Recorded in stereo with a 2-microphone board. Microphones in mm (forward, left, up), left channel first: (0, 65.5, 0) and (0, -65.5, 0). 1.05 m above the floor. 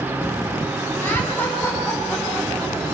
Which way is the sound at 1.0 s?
15° left (ahead or behind).